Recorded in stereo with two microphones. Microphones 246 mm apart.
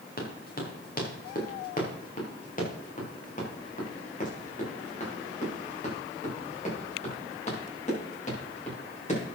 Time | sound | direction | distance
0.2 | running footsteps | 40° left (ahead or behind) | 4.5 m